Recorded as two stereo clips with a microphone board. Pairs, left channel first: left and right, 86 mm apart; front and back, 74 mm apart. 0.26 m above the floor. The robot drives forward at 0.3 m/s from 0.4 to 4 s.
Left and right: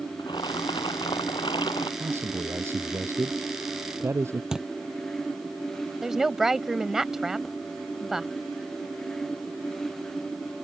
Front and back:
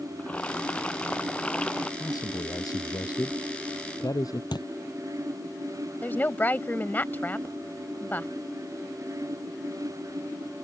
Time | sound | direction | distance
0.2 | boiling | 70° left | ?
2.0 | a man speaking | 30° right | ?
4.5 | a thud | 10° right | ?
6.0 | a woman speaking | 10° right | ?